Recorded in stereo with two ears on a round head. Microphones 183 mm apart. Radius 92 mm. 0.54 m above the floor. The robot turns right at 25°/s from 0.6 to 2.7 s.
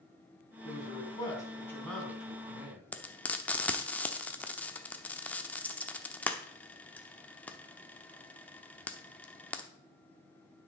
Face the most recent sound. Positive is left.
turn(degrees=5)  # may be behind; listen again after turning